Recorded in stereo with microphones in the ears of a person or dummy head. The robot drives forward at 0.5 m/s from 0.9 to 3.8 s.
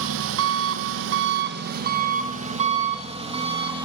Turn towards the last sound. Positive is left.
turn(degrees=-30)  # may be behind; listen again after turning